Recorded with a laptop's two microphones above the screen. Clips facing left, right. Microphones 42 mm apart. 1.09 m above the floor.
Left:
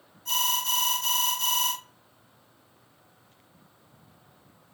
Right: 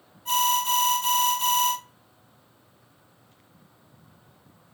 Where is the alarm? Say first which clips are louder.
Right 5 dB; 20° right (ahead or behind), 1.7 m.